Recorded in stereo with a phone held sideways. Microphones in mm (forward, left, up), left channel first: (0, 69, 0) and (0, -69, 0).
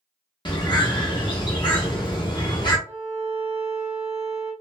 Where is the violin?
20° right (ahead or behind), 1.1 m.